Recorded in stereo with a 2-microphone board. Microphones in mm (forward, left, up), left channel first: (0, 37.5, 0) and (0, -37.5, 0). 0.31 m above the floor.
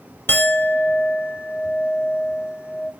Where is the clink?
30° left (ahead or behind), 0.8 m.